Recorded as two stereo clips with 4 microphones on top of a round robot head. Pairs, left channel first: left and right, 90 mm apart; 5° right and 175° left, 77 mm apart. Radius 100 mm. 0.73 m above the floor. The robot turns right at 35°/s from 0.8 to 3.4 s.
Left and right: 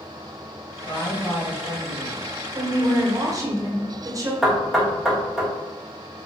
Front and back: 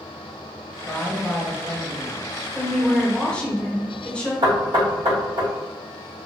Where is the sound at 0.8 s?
55° left, 1.2 m; by 2.3 s 105° left, 1.2 m.